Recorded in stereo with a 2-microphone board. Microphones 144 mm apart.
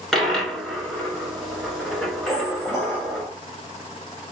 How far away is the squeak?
About 1.8 m.